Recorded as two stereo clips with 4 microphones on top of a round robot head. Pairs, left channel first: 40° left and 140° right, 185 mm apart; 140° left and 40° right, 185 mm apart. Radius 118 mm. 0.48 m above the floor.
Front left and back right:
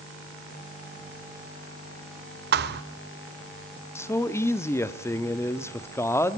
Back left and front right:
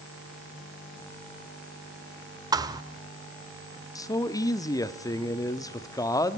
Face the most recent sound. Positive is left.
turn(degrees=95)